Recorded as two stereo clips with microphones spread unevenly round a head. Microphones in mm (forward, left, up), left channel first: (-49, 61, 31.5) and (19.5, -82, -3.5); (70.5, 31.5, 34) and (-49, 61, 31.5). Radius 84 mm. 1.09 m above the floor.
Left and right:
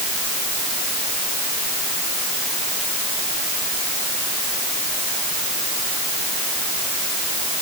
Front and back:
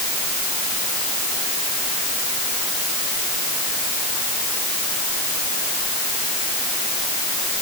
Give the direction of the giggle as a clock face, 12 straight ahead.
I don't hear a giggle.